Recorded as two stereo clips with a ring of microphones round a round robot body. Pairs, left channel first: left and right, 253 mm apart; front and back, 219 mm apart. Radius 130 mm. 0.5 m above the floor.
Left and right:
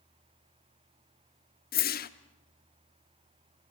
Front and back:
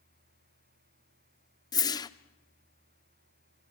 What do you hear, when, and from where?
1.7 s a whoosh: 65° left, 0.8 m